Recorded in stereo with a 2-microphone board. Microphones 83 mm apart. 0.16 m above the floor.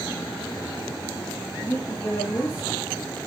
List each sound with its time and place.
1.6 s a woman speaking: 30° left (ahead or behind), 3.5 m